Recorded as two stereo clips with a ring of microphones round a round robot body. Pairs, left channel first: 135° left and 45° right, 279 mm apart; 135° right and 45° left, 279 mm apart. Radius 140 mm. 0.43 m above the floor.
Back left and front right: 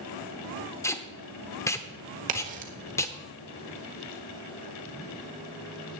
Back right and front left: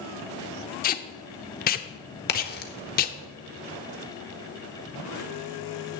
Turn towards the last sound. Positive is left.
turn(degrees=-95)